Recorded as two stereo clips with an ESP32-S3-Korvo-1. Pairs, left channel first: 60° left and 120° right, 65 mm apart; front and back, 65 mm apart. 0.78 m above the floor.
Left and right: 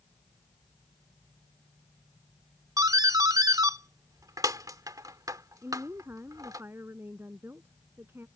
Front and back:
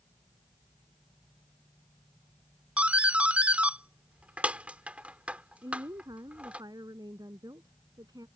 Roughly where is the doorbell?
Right.